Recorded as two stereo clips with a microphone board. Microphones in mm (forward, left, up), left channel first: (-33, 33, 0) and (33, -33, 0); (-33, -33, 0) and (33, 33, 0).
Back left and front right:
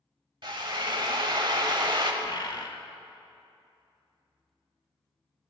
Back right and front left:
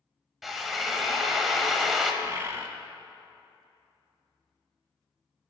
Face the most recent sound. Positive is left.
turn(degrees=105)